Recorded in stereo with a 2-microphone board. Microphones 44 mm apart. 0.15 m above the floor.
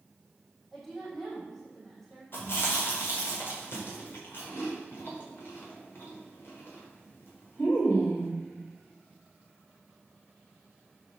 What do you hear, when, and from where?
0.7 s a woman speaking: 5° left (ahead or behind), 5 m
2.3 s chewing: 50° left (ahead or behind), 4.5 m